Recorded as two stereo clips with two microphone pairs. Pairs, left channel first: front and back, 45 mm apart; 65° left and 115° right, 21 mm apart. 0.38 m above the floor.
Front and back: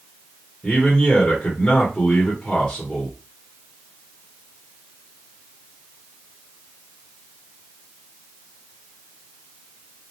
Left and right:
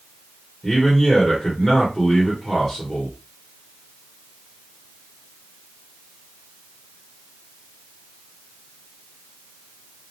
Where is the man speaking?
Straight ahead, 1.1 m.